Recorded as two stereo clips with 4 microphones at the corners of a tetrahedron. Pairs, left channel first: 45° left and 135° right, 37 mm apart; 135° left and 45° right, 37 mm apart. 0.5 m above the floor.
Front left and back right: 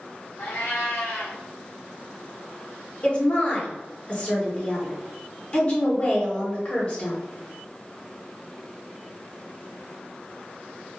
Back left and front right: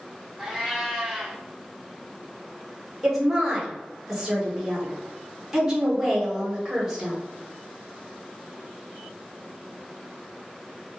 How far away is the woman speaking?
About 0.9 m.